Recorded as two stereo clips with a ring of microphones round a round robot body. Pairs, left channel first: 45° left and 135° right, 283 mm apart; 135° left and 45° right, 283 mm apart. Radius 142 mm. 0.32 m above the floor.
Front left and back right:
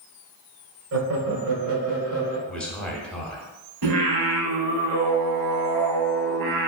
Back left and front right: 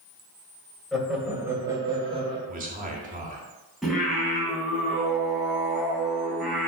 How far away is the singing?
About 1.8 m.